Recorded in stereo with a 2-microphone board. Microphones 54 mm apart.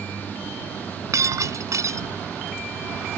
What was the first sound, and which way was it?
Breaking glass, 75° right (ahead or behind).